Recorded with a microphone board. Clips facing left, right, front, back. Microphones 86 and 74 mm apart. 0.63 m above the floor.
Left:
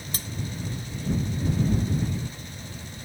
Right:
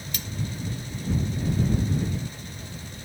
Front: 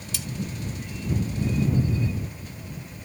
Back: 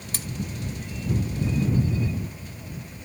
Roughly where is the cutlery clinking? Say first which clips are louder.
Right 1 dB, even; behind left.